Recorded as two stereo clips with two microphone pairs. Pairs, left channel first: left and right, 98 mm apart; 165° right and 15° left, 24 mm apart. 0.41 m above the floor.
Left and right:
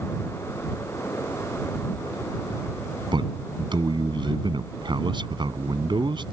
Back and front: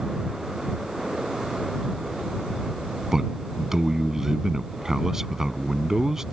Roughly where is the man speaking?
Ahead right.